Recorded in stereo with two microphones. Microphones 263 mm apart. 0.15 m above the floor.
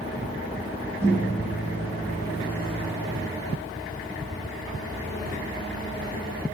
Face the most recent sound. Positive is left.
turn(degrees=-10)  # may be behind; listen again after turning